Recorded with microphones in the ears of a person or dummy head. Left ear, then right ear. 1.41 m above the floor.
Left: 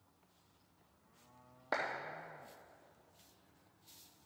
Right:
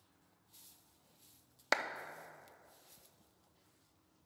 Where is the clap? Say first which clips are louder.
Right 3 dB; 65° right (ahead or behind), 0.6 m.